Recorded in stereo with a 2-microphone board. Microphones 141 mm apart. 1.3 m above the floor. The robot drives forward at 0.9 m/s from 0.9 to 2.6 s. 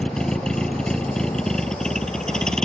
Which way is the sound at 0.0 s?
5° left (ahead or behind).